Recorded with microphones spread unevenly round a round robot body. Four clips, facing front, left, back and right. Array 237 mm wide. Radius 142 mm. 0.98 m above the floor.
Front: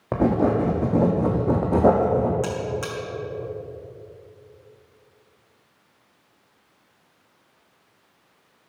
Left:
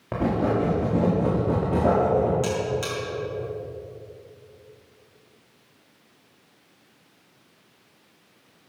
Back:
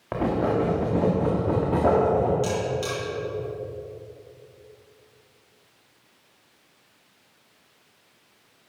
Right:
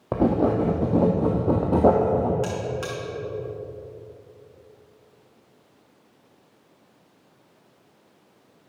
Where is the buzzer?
5° left, 2.5 m.